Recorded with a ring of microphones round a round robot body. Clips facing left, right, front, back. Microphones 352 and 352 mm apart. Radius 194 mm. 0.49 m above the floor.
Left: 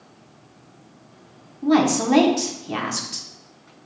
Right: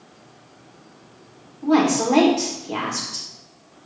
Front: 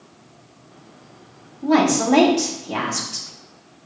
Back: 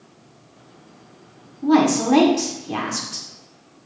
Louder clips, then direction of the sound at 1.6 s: Even, back 1 dB; 120° left.